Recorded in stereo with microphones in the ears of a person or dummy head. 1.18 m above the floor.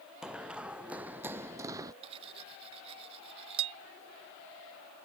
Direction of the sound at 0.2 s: 5° right (ahead or behind).